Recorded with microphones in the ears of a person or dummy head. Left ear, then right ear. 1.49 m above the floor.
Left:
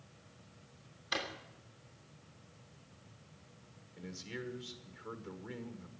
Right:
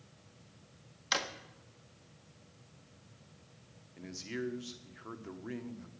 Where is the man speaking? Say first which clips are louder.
Right 4 dB; 15° right (ahead or behind), 1.2 m.